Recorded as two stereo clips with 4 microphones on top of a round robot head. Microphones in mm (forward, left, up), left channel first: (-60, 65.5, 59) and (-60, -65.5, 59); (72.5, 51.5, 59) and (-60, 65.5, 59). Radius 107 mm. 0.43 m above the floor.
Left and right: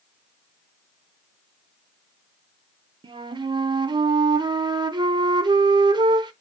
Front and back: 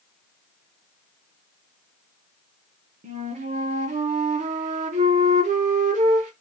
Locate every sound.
3.0 s a flute: 150° right, 0.5 m